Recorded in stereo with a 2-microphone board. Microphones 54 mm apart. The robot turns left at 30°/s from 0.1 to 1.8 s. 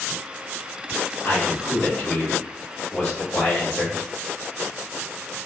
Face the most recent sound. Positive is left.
turn(degrees=20)  # may be behind; listen again after turning